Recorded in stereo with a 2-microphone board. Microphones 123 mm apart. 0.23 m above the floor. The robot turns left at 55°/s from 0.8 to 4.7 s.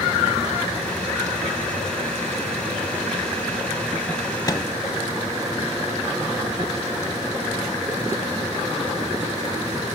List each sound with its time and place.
4.5 s a microwave: 30° left (ahead or behind), 1.0 m; by 4.7 s 25° left (ahead or behind), 1.0 m